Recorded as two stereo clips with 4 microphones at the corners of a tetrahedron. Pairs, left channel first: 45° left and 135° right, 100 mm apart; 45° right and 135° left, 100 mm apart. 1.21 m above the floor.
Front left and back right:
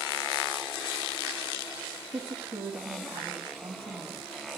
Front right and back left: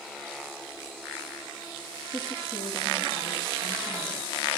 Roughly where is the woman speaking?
Right.